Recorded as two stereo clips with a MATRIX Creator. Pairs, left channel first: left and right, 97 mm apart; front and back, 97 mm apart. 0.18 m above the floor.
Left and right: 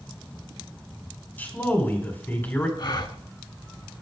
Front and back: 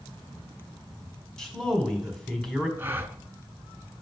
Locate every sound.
1.4 s a man speaking: 70° left, 1.4 m
2.8 s a gasp: 115° left, 0.6 m